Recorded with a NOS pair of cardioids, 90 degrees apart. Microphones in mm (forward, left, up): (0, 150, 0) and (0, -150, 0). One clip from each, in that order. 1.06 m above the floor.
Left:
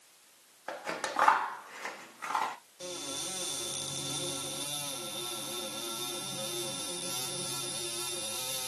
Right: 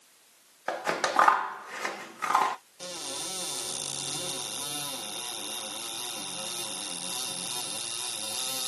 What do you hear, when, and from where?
0.7 s scissors: 35° right, 0.6 m
2.8 s a cupboard door: 20° right, 1.2 m